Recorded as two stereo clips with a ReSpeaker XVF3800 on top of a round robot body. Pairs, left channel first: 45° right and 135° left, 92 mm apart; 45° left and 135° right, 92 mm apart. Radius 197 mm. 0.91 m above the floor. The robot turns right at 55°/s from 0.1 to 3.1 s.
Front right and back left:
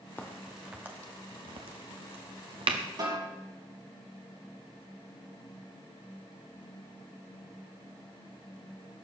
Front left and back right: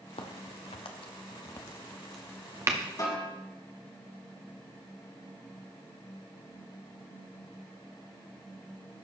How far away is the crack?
About 0.8 m.